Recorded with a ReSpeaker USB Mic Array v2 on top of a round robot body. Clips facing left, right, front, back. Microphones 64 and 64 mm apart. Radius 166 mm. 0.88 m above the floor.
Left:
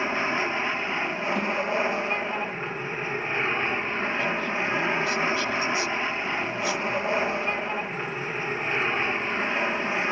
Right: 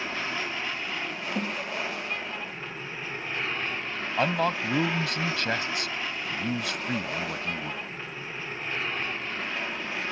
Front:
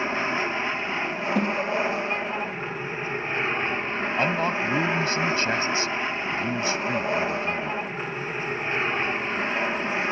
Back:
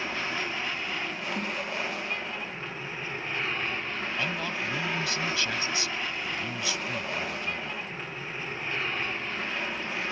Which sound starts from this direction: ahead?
A snare drum, at 1.4 s.